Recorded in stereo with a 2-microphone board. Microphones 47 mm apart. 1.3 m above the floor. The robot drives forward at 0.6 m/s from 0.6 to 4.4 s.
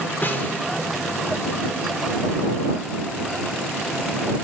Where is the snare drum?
45° left (ahead or behind), 2.5 m.